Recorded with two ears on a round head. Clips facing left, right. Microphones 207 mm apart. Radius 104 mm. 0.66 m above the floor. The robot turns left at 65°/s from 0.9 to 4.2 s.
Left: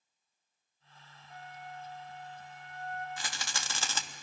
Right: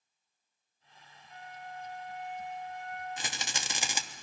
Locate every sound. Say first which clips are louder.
1.3 s a flute: right 1 dB; 150° left, 4 m; by 3.1 s 35° left, 4 m
3.2 s a rattle: right 2 dB; 20° right (ahead or behind), 1.0 m; by 4.0 s 10° right (ahead or behind), 1.0 m